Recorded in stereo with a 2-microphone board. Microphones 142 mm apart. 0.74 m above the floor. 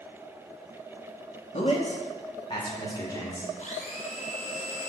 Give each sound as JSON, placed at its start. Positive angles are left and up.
{"t": 1.5, "sound": "a man speaking", "side_deg": 45, "distance_m": 1.1}
{"t": 3.6, "sound": "a blender", "side_deg": 55, "distance_m": 1.1}